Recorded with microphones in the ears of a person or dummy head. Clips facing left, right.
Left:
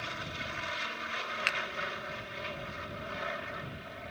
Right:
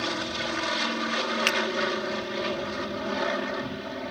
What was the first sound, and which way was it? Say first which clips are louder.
An aircraft: right 12 dB; 65° right (ahead or behind).